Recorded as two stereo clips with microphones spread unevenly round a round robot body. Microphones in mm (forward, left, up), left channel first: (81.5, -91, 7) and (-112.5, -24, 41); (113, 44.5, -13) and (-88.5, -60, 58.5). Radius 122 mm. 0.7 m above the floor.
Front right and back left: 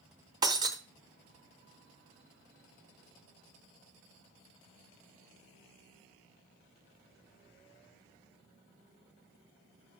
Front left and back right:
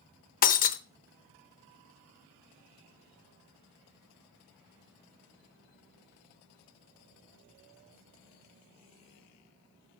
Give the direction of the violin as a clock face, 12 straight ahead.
I don't hear a violin.